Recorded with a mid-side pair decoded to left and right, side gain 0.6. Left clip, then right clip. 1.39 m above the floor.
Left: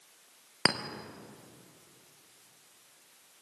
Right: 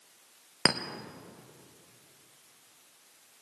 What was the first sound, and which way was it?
A clink, 10° right.